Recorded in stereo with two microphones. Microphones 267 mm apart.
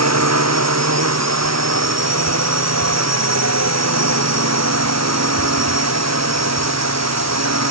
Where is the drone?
75° right (ahead or behind).